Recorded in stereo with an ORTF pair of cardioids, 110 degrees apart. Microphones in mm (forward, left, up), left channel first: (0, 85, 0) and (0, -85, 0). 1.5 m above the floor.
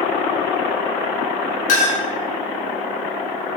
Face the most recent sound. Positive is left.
turn(degrees=55)